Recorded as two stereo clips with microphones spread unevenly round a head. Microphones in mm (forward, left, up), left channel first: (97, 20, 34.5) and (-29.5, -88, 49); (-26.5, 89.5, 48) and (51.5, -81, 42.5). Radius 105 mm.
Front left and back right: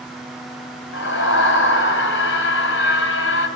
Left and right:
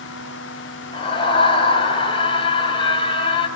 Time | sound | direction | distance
0.9 | a scream | 50° left | 5 m